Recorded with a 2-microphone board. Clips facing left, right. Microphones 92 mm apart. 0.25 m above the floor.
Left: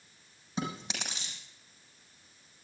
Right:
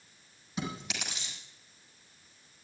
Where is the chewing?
30° left (ahead or behind), 6.5 m.